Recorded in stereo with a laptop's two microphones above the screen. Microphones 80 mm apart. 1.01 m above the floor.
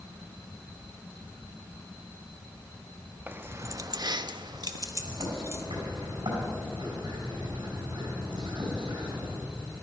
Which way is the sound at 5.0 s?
85° right.